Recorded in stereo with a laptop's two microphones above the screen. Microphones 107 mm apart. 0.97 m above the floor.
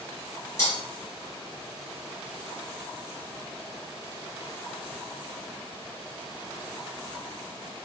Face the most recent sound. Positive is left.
turn(degrees=30)  # may be behind; listen again after turning